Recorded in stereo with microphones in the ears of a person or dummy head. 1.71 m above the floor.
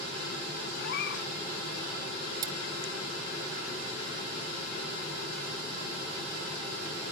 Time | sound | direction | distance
0.8 | a cat meowing | 70° left (ahead or behind) | ?
2.4 | cutlery clinking | 20° right (ahead or behind) | ?